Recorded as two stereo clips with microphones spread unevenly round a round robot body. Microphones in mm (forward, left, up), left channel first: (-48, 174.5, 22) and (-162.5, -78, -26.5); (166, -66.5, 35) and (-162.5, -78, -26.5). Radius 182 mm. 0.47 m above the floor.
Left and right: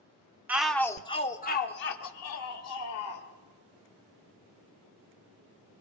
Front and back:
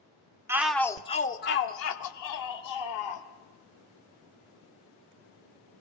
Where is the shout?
155° right, 0.7 m; by 3.3 s 30° left, 1.5 m.